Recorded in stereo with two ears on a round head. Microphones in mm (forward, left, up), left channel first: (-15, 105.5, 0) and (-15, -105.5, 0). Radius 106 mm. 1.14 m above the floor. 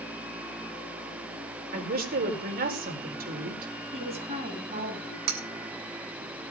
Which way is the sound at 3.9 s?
25° right (ahead or behind).